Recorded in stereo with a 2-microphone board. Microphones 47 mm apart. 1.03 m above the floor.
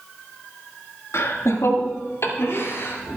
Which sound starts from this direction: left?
Laughter, at 1.1 s.